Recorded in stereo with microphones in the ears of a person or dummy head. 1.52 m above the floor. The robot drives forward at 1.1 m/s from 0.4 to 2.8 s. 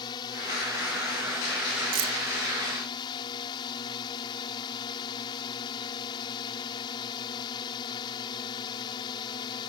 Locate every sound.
0.0 s a drone: 25° left (ahead or behind)
1.9 s keys jangling: 75° right (ahead or behind); by 2.1 s 70° right (ahead or behind)